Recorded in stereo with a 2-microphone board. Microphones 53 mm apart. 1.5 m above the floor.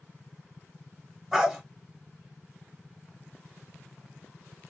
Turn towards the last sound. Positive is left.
turn(degrees=-5)  # may be behind; listen again after turning